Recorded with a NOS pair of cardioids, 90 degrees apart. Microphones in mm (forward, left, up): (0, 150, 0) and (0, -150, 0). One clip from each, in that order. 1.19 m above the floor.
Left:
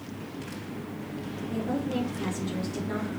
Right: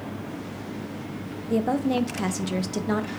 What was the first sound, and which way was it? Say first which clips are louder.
A woman speaking: right 8 dB; 60° right.